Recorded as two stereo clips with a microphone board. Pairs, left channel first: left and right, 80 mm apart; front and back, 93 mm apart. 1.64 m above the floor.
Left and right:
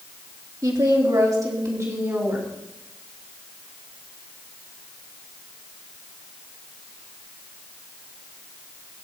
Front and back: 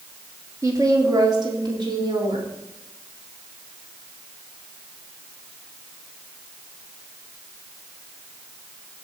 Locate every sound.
0.6 s a woman speaking: 125° right, 3 m; by 2.5 s 145° right, 4.5 m